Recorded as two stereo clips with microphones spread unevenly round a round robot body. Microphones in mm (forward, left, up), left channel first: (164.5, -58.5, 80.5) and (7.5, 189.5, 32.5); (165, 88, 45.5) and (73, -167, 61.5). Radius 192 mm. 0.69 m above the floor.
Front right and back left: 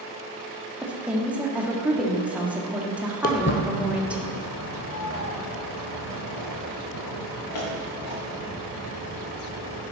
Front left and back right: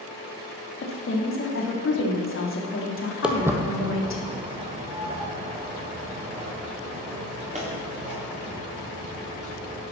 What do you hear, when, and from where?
0.8 s a woman speaking: 45° left, 1.9 m
3.2 s footsteps: 30° right, 0.9 m; by 9.8 s 45° right, 5.5 m